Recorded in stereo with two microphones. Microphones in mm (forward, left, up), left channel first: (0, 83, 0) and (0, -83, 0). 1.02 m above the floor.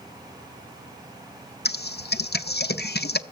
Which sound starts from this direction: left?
Typing on a keyboard, at 1.6 s.